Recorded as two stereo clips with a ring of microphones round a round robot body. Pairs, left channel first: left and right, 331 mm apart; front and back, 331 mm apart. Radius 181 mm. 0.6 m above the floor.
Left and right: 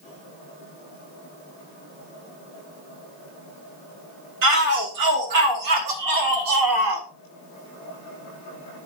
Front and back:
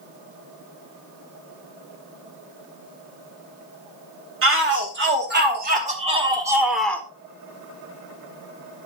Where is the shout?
130° right, 3.5 m; by 7.1 s 80° right, 2 m.